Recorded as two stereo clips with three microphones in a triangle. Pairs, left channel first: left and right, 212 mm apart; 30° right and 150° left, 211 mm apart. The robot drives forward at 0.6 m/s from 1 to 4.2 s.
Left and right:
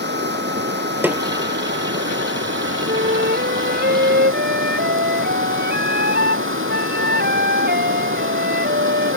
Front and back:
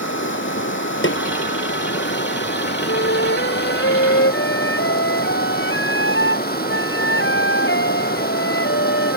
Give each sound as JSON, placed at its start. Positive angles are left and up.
{"t": 0.0, "sound": "running water", "azimuth_deg": -55}
{"t": 1.0, "sound": "a snare drum", "azimuth_deg": -10}
{"t": 2.9, "sound": "a flute", "azimuth_deg": -50}